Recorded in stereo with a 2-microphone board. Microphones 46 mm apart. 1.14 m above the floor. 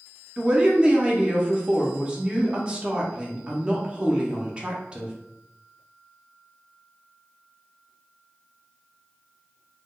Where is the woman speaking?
25° right (ahead or behind), 0.6 m.